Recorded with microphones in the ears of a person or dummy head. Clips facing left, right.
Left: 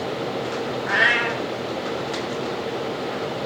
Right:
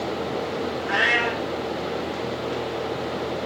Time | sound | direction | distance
0.8 | a cat meowing | centre (ahead or behind) | 2.0 m